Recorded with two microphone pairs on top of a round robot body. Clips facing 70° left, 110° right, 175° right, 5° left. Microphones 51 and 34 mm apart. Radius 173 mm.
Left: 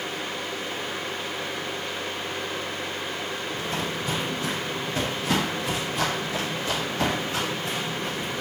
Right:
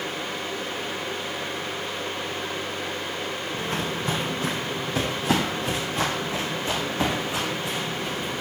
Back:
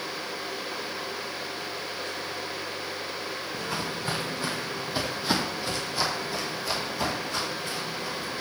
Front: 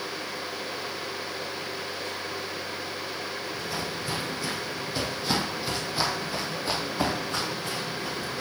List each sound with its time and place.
3.5 s footsteps: 140° right, 2 m; by 8.4 s 30° right, 3.5 m